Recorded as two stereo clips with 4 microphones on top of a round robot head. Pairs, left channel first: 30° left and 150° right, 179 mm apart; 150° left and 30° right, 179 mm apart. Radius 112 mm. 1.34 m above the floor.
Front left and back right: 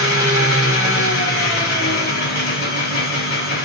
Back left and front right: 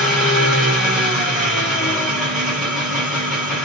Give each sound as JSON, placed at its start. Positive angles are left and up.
{"t": 0.0, "sound": "an engine running", "azimuth_deg": 55, "distance_m": 1.3}